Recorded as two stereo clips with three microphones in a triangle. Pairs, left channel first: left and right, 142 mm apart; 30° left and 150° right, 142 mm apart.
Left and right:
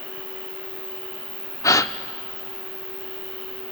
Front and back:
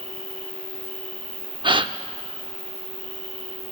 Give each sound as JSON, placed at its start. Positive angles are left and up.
{"t": 0.0, "sound": "an insect", "azimuth_deg": -50, "distance_m": 0.8}
{"t": 1.6, "sound": "a gasp", "azimuth_deg": 160, "distance_m": 0.5}